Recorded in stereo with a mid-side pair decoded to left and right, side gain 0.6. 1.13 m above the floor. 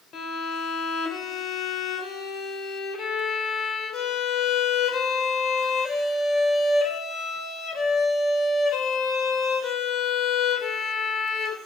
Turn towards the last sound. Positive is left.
turn(degrees=45)